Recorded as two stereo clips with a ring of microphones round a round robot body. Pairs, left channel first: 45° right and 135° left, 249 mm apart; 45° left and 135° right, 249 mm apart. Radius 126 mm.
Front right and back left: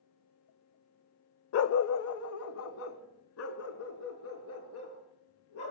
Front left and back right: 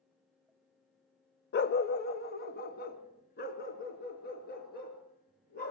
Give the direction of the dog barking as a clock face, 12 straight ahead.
12 o'clock.